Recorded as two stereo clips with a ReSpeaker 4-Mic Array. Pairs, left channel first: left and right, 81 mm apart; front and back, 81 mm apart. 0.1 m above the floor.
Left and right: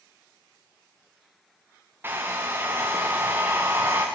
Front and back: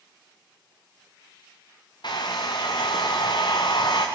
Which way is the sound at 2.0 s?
25° right.